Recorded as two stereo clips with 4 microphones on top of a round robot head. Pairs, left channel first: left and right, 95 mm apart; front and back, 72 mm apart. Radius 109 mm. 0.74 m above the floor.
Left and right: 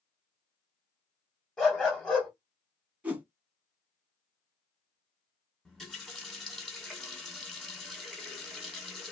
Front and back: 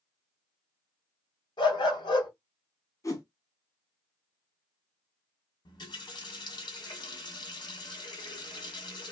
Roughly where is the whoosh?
Ahead.